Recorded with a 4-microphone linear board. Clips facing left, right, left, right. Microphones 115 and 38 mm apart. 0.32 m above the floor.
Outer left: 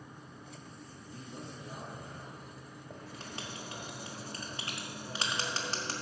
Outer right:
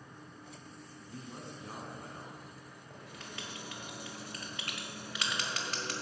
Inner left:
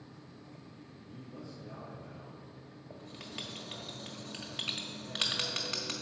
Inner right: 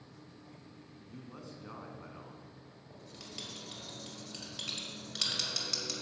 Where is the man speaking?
70° right (ahead or behind), 2.5 m.